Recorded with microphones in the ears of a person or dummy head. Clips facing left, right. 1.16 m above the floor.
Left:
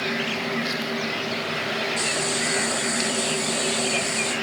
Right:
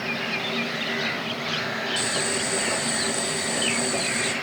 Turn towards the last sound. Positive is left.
turn(degrees=-55)  # may be behind; listen again after turning